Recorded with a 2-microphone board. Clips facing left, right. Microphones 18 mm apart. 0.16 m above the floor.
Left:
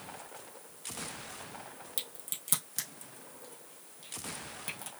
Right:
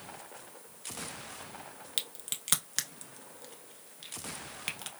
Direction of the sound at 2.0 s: 50° right (ahead or behind).